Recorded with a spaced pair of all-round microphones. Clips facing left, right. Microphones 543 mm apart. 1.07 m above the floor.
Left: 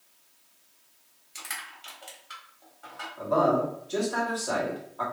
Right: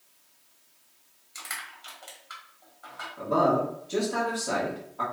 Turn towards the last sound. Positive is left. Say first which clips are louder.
# even
turn(degrees=-45)  # may be behind; listen again after turning